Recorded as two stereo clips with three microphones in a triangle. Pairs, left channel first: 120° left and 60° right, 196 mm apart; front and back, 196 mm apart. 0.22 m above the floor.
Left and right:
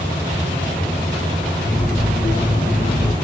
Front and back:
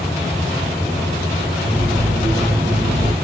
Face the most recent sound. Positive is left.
turn(degrees=165)